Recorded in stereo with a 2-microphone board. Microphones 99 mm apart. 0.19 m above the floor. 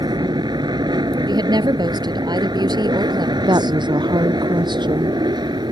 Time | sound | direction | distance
0.0 | an aircraft | 45° right (ahead or behind) | ?
1.3 | a woman speaking | 45° right (ahead or behind) | ?
3.5 | a woman speaking | 50° right (ahead or behind) | ?